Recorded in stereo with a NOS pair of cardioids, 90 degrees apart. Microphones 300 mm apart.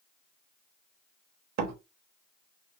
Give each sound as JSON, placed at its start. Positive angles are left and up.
{"t": 1.6, "sound": "a door slam", "azimuth_deg": -65, "distance_m": 1.2}